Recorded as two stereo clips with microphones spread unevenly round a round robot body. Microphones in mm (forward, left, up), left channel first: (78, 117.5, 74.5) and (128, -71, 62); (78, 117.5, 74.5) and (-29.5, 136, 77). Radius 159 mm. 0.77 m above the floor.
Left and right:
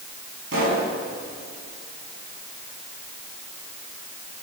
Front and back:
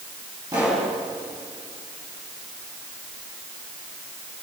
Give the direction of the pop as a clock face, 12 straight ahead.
4 o'clock.